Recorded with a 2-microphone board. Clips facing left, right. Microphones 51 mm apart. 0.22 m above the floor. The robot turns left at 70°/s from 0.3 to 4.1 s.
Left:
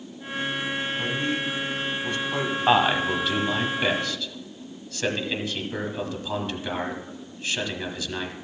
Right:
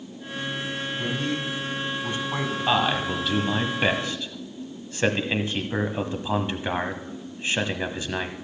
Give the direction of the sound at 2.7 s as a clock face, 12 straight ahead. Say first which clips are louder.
Left 3 dB; 10 o'clock.